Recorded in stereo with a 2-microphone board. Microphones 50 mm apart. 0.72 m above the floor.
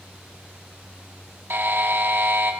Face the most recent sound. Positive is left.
turn(degrees=-45)  # may be behind; listen again after turning